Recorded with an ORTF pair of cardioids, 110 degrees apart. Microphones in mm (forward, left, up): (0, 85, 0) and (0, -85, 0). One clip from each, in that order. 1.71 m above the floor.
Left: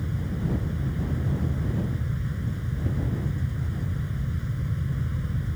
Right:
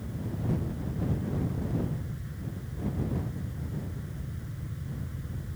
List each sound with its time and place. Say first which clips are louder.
0.0 s a fan: left 4 dB; 50° left